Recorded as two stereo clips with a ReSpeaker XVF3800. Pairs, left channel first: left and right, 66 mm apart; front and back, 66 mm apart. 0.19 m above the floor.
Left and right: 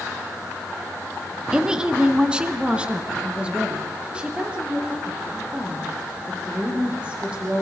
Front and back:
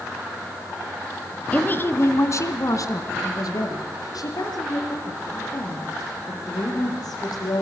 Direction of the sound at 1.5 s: 25° right.